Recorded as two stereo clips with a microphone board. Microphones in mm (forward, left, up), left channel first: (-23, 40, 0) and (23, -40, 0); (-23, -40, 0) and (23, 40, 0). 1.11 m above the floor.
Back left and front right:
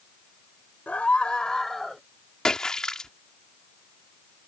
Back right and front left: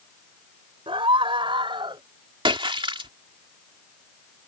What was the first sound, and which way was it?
A scream, 45° left.